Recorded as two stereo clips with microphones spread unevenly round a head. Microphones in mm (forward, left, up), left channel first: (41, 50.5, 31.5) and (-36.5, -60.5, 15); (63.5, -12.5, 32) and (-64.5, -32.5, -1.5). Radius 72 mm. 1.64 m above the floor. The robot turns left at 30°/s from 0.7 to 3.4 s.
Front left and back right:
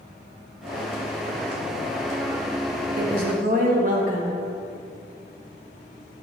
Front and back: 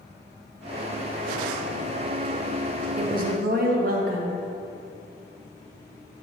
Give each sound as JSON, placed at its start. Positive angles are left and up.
{"t": 3.0, "sound": "a woman speaking", "azimuth_deg": -145, "distance_m": 1.5}